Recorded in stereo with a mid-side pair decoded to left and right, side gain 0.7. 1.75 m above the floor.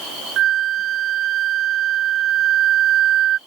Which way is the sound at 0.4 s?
50° right.